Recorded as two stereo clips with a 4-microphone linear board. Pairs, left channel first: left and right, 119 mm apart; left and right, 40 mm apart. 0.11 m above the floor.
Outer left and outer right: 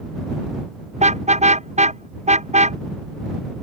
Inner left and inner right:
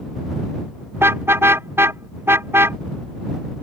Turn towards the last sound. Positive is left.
turn(degrees=-75)  # may be behind; listen again after turning